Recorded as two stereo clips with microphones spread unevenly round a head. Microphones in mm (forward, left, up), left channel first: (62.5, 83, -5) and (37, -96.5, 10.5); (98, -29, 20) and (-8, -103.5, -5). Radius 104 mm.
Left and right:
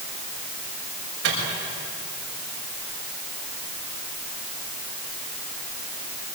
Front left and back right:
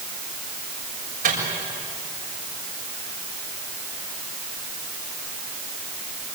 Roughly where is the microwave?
Behind right.